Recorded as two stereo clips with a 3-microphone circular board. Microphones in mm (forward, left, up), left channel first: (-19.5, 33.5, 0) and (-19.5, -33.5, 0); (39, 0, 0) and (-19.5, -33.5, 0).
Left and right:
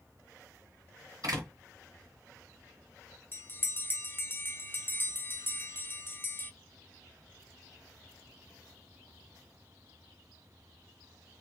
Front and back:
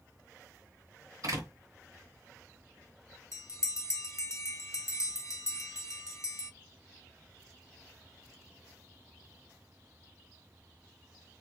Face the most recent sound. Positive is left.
turn(degrees=45)